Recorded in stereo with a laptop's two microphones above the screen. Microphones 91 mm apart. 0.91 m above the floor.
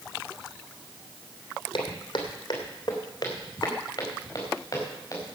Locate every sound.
1.7 s footsteps: 60° left (ahead or behind), 2 m; by 5.2 s 35° left (ahead or behind), 6 m